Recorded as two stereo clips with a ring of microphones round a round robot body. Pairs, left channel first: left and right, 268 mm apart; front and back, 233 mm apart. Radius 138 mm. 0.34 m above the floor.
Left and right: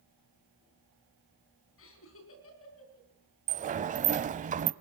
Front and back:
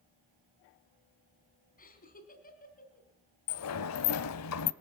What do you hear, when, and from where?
1.8 s laughter: 50° left, 3.5 m
3.5 s a sliding door: 25° right, 0.8 m